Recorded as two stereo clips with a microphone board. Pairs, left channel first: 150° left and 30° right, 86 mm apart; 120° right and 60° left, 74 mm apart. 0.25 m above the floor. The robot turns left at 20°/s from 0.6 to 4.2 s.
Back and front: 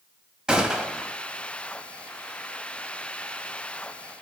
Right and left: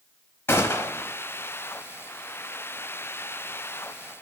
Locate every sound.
0.5 s a gunshot: 100° right, 0.9 m; by 1.1 s 115° right, 0.9 m